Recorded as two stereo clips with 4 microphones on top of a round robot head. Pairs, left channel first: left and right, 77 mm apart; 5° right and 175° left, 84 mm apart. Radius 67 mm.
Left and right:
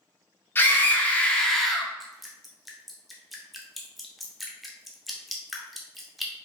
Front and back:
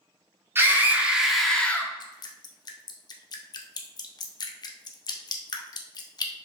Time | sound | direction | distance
0.6 | a scream | 135° left | 1.1 m
2.0 | dripping | straight ahead | 0.7 m